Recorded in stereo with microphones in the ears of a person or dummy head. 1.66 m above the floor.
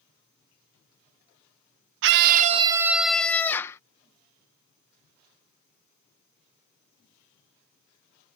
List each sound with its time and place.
2.0 s a scream: 65° right (ahead or behind); by 3.8 s 15° left (ahead or behind)